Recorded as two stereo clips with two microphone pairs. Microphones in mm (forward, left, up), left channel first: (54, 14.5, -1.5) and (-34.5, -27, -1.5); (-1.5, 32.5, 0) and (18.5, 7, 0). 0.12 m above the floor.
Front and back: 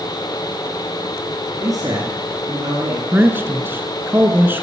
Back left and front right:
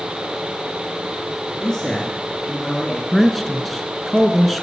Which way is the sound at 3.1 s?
155° right.